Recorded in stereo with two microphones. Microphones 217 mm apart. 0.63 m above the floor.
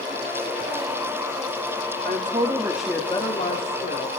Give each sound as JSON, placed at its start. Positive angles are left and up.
{"t": 2.0, "sound": "a woman speaking", "side_deg": -45, "distance_m": 1.4}